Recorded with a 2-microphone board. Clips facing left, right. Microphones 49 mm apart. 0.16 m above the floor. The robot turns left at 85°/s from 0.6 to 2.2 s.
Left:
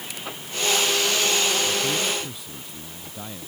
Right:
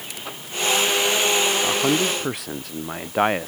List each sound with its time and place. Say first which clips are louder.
1.6 s a man speaking: right 4 dB; 50° right; by 3.5 s 100° right